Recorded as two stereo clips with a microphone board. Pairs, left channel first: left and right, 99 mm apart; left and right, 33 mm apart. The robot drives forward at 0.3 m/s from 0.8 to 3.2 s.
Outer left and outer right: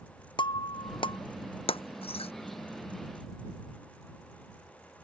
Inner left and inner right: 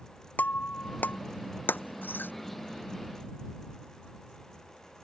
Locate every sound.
0.4 s breaking glass: 55° left (ahead or behind); by 2.3 s 85° left